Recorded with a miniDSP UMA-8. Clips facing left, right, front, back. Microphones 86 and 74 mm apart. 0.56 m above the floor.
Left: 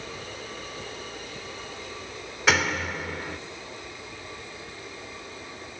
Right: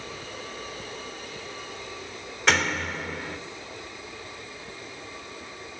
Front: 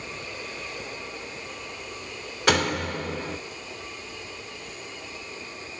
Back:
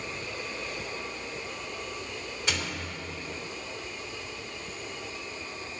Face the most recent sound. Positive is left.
turn(degrees=5)